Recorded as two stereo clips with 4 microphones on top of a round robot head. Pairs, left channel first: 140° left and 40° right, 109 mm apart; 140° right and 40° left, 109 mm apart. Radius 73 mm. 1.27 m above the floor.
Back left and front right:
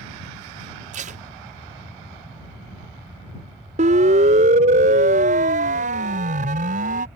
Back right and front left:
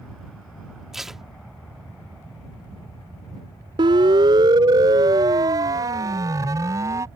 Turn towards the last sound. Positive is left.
turn(degrees=-25)